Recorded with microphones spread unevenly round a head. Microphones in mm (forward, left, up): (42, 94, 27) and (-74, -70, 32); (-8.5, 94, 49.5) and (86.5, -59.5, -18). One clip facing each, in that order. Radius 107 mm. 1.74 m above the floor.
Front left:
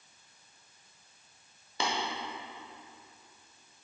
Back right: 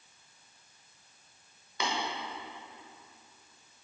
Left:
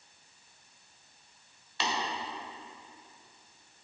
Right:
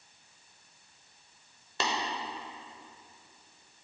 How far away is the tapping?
About 1.1 m.